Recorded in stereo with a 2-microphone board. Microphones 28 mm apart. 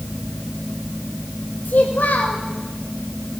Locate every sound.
1.6 s a child speaking: 75° left (ahead or behind), 3 m